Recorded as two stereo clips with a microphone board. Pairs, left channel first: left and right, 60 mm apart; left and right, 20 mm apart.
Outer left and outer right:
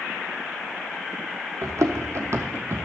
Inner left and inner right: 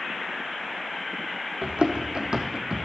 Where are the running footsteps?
65° right (ahead or behind), 1.3 m; by 2.9 s 45° right (ahead or behind), 0.7 m.